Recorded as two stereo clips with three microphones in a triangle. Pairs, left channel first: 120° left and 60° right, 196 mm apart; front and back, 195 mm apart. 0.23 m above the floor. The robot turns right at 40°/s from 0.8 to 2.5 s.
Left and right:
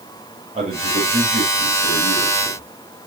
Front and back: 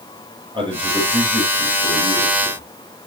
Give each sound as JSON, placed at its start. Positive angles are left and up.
{"t": 0.5, "sound": "a man speaking", "azimuth_deg": -115, "distance_m": 6.5}